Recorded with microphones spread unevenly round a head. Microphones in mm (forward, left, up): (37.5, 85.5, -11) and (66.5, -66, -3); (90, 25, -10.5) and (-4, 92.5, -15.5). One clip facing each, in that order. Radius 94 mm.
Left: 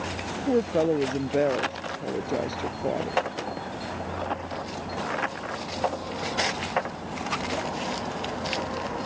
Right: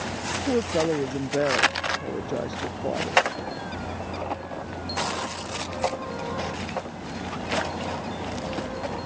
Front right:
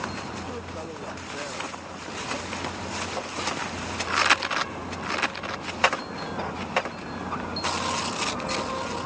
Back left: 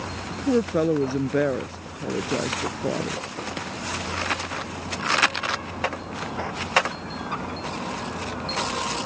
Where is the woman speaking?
175° right.